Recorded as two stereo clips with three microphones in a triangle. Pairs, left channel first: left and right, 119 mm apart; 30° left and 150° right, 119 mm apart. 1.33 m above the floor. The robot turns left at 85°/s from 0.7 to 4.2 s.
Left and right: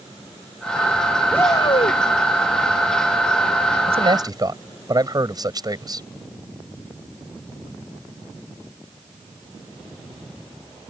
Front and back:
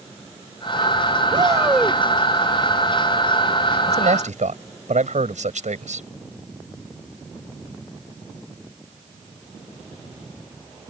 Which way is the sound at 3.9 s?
120° right.